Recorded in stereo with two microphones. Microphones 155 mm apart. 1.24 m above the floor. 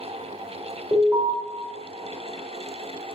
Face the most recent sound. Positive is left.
turn(degrees=-50)  # may be behind; listen again after turning